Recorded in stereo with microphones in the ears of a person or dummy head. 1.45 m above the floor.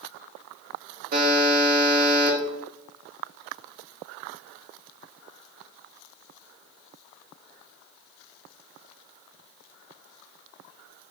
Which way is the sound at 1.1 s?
50° right (ahead or behind).